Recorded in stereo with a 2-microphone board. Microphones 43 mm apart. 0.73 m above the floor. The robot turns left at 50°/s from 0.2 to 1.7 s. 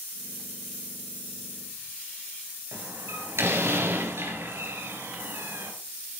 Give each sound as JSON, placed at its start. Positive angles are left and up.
{"t": 2.7, "sound": "a door slam", "side_deg": -75, "distance_m": 3.5}